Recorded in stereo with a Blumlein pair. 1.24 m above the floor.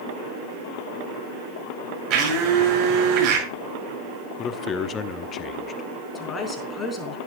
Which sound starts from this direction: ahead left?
A man speaking, at 4.4 s.